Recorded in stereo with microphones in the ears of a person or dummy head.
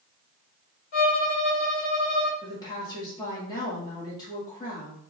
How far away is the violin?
About 1.3 m.